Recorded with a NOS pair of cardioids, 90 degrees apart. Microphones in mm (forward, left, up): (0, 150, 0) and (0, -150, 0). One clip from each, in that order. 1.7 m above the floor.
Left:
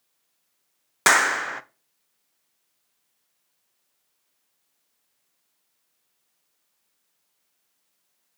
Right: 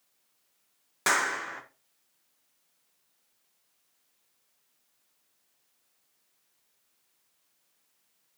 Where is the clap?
55° left, 0.8 m.